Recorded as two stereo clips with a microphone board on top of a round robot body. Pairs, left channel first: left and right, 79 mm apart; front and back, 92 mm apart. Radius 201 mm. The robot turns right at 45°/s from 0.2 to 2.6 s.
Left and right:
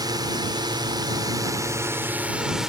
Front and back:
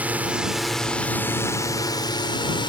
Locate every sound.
0.0 s a drone: 110° right; by 2.7 s 10° right